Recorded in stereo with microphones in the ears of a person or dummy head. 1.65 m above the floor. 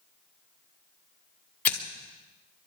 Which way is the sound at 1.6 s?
15° left (ahead or behind).